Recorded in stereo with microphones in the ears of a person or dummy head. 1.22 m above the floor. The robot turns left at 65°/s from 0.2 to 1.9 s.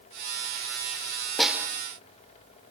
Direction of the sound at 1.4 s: 10° left (ahead or behind).